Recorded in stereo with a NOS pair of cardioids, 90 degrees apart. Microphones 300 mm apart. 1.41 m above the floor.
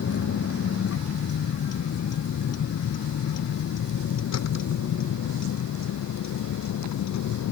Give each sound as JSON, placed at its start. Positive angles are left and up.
{"t": 0.0, "sound": "a vehicle", "azimuth_deg": 50}